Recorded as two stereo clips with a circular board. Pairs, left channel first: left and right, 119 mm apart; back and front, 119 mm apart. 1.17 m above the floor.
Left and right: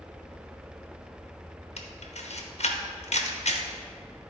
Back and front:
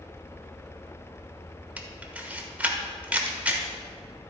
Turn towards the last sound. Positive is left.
turn(degrees=80)